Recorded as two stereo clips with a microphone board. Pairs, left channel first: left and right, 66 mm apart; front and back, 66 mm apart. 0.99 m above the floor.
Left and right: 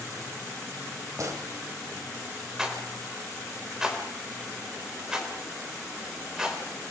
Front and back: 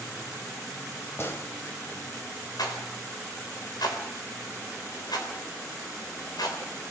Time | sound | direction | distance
1.2 | a gunshot | 55° right | 3 m
2.6 | a rattle | 10° right | 4 m